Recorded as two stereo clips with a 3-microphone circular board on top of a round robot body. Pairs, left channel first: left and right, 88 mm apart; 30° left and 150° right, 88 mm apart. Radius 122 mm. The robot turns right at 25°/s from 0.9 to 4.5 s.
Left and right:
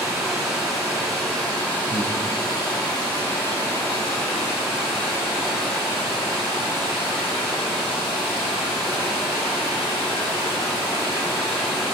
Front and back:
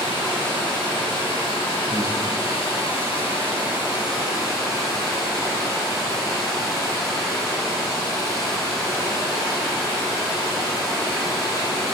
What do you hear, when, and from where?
0.0 s running water: 5° right, 3 m; by 11.9 s 85° left, 3 m
1.9 s breathing: 95° left, 1.1 m; by 2.1 s 105° left, 1.1 m